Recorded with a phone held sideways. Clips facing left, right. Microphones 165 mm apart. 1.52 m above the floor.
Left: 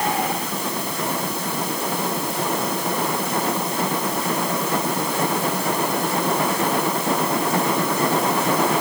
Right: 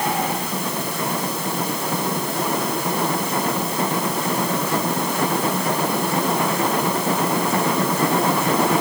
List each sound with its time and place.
Only background noise.